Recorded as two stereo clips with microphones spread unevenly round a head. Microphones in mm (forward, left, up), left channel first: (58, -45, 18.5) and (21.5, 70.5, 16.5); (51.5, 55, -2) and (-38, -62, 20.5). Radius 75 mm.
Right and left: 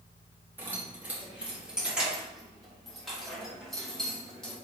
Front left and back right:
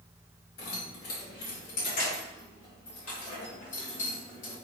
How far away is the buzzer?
I don't hear a buzzer.